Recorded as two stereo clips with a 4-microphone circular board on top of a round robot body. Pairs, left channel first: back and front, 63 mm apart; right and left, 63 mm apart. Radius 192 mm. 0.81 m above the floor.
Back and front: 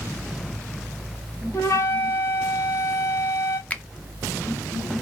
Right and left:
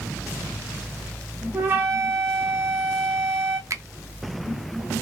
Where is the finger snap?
115° left, 0.7 m.